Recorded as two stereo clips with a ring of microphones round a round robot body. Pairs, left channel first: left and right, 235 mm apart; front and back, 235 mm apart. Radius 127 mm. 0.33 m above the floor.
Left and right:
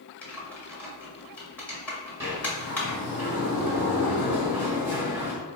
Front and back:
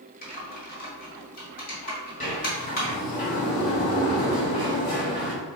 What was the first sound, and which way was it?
Typing on a keyboard, 10° left.